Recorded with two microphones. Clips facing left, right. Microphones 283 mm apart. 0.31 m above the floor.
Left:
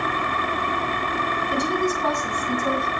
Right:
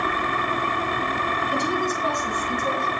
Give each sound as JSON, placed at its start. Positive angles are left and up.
{"t": 1.5, "sound": "a woman speaking", "side_deg": 55, "distance_m": 3.5}